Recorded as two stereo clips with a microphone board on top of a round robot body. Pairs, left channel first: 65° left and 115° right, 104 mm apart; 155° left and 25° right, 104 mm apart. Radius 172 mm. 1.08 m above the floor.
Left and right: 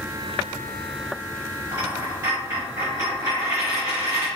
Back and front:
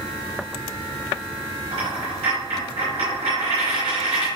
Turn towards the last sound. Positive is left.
turn(degrees=-55)